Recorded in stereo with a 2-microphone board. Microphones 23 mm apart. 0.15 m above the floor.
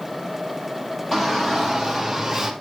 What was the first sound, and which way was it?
A shout, 20° left (ahead or behind).